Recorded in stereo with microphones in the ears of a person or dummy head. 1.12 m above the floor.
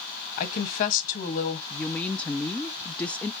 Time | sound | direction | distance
0.4 | a woman speaking | 40° left (ahead or behind) | 1.4 m
1.7 | a woman speaking | 15° left (ahead or behind) | 0.5 m